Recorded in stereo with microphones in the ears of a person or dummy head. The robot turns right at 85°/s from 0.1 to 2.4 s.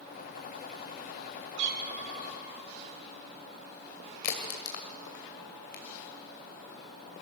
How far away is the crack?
About 2 m.